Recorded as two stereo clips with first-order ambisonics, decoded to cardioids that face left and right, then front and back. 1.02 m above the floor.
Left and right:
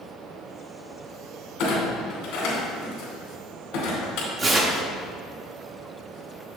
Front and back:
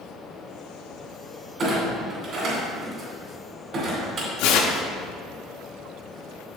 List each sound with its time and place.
1.6 s a clunk: 120° left, 2.5 m
4.4 s tearing paper: 20° right, 0.9 m